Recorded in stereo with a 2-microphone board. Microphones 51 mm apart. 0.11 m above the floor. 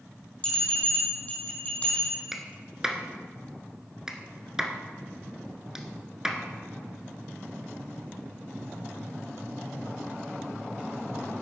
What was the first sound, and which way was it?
A bell, 25° left (ahead or behind).